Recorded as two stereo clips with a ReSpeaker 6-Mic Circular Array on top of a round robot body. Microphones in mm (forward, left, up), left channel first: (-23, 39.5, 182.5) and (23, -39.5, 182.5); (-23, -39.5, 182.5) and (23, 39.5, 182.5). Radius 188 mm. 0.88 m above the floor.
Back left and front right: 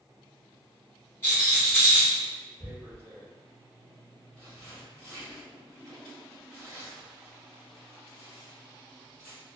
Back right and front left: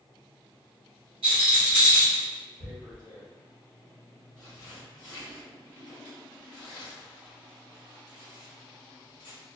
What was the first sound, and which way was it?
A rattle, 55° left.